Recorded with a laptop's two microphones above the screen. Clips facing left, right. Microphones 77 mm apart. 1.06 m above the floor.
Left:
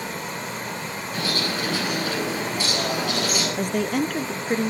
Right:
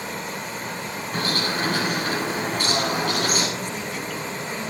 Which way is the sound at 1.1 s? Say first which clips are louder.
Right 2 dB; 50° right (ahead or behind).